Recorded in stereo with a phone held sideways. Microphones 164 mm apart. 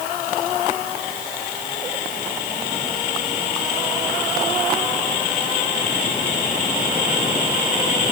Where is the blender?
I don't hear a blender.